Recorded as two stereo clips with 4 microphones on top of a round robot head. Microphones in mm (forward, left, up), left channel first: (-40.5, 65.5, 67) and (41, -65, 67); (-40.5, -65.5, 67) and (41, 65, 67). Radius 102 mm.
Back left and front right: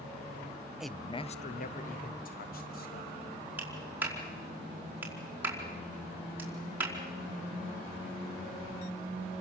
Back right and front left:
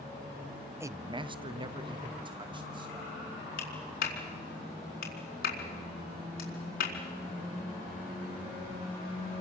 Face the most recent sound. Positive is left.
turn(degrees=-135)